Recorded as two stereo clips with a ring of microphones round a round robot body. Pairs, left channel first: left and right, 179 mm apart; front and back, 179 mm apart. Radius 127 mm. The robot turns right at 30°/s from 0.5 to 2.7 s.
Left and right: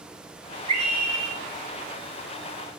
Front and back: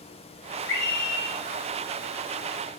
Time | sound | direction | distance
0.7 | a scream | 35° right | 8 m